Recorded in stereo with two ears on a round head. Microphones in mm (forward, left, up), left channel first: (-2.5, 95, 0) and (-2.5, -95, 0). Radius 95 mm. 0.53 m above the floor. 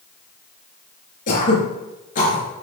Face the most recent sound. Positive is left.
turn(degrees=35)  # may be behind; listen again after turning